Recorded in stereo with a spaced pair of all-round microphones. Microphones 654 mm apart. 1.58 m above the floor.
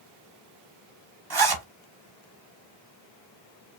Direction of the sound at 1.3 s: 40° right (ahead or behind).